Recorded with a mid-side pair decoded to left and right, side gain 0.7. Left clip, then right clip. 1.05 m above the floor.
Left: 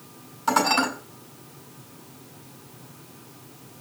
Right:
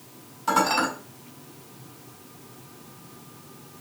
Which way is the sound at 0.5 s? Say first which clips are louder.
Left 1 dB; 15° left.